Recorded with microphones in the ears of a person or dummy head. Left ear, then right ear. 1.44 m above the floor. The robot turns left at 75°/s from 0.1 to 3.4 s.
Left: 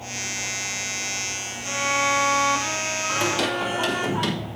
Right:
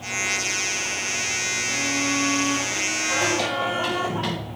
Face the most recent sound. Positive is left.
turn(degrees=75)  # may be behind; listen again after turning